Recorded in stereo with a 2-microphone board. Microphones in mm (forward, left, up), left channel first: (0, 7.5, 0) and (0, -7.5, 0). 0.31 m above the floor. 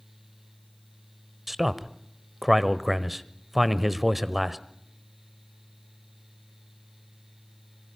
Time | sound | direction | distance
1.5 | a man speaking | 15° right (ahead or behind) | 1.0 m